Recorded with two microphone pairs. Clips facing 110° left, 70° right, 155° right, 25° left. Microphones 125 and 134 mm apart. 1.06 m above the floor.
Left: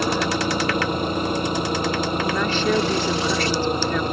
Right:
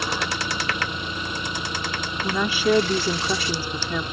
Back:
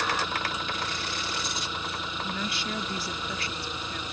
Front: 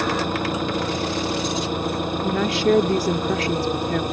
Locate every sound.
0.0 s an engine running: 65° left
2.2 s a woman speaking: 10° left